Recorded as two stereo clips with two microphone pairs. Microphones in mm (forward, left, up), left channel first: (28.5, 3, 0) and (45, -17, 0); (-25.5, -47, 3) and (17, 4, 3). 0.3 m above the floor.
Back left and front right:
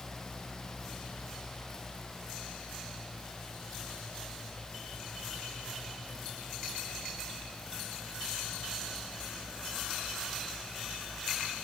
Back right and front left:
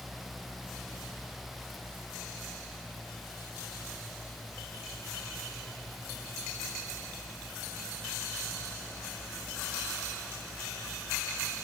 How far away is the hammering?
No hammering in this recording.